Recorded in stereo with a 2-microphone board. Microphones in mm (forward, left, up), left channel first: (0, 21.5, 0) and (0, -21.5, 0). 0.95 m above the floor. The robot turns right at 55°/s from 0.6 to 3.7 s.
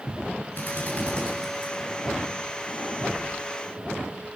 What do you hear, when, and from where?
0.6 s a drill: 50° left (ahead or behind), 8.5 m; by 1.7 s 10° right (ahead or behind), 8.5 m